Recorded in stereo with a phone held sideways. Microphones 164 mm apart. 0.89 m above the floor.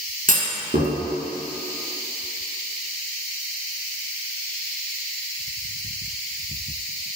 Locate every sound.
0.3 s a clunk: 60° right (ahead or behind), 1.5 m